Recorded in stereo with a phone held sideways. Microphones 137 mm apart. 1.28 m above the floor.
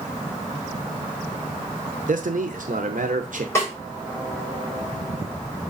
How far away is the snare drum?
About 4.5 m.